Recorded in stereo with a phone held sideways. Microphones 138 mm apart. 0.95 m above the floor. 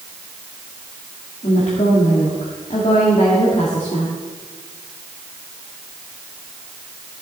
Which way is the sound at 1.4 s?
50° left (ahead or behind).